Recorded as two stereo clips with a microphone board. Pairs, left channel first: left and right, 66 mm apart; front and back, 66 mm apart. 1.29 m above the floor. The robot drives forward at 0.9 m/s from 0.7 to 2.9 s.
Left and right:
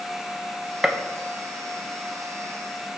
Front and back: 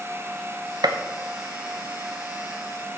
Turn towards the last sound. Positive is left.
turn(degrees=180)